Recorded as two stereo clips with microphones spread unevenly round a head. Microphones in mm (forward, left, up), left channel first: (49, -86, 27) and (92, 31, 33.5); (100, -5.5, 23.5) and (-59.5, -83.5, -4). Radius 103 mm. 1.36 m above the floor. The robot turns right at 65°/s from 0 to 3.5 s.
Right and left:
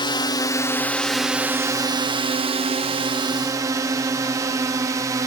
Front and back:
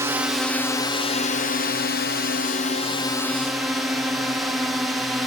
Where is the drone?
100° right; by 5.3 s 130° left.